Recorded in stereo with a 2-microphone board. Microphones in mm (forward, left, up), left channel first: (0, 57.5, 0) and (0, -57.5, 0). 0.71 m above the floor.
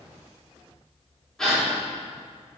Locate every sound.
1.4 s a gasp: 5° left (ahead or behind), 2 m